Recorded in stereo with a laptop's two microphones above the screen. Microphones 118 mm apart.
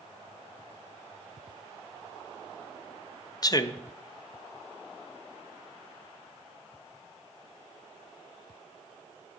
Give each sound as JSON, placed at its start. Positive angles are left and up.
{"t": 3.4, "sound": "a man speaking", "side_deg": 30, "distance_m": 0.6}